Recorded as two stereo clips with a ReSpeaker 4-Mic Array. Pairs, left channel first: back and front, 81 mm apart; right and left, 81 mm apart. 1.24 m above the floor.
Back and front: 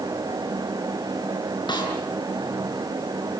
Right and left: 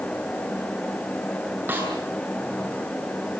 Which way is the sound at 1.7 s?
155° left.